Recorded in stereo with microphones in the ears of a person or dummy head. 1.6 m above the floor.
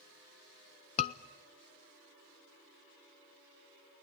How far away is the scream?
About 0.6 m.